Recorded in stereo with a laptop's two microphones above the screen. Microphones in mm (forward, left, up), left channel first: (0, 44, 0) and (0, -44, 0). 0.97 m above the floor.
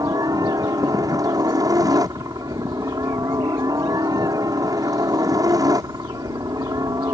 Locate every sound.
0.0 s a helicopter: 45° right (ahead or behind)